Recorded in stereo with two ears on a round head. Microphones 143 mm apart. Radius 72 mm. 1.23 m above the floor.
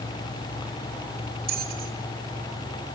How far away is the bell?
About 3 m.